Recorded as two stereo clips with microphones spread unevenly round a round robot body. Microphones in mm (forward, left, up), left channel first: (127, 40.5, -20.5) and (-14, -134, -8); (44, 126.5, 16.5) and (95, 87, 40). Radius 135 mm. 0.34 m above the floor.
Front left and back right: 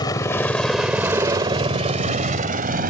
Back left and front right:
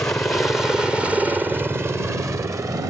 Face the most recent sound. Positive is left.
turn(degrees=-90)